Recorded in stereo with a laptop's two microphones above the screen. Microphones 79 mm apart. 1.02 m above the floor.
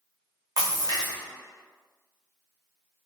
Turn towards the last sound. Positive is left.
turn(degrees=-50)  # may be behind; listen again after turning